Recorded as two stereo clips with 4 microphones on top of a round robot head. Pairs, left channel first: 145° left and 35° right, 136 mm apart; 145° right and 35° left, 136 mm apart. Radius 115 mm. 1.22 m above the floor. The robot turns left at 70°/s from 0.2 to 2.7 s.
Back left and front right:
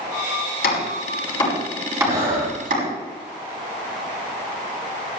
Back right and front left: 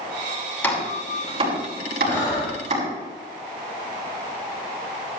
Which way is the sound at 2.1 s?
70° right.